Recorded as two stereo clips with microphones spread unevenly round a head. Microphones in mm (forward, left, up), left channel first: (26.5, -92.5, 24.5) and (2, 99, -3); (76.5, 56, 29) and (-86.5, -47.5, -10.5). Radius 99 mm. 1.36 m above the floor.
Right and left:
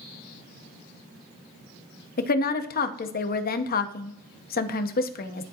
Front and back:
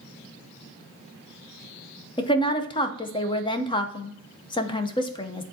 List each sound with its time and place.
2.2 s a woman speaking: 35° right, 0.7 m